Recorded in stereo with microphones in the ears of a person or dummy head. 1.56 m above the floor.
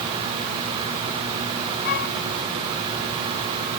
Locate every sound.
1.9 s a flute: 60° left (ahead or behind)